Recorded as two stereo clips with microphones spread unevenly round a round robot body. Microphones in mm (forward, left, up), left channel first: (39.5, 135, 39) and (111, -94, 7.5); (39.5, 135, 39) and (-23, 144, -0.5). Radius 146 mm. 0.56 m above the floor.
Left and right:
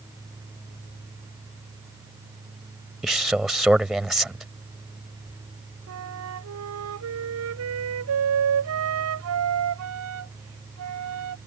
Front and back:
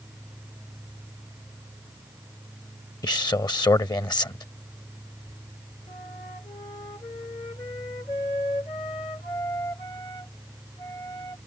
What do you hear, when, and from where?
3.0 s a man speaking: 15° left
5.9 s a flute: 70° right